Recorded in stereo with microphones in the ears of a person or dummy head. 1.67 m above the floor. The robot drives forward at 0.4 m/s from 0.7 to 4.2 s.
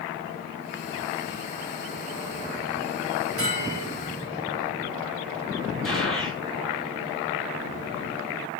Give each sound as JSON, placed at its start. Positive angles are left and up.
{"t": 3.4, "sound": "a bell", "side_deg": -40, "distance_m": 9.0}
{"t": 5.8, "sound": "a gunshot", "side_deg": 0, "distance_m": 6.0}